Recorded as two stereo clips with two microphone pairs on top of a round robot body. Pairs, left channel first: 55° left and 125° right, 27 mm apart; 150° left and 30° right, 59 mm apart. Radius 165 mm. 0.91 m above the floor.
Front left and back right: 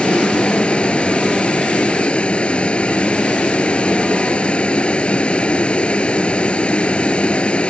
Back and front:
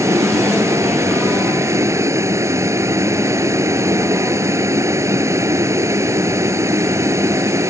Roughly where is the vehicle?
Ahead.